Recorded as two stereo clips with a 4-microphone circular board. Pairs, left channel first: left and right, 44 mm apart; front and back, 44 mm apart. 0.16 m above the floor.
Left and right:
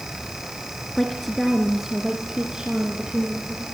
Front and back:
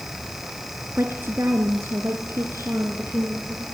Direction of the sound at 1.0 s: 170° left.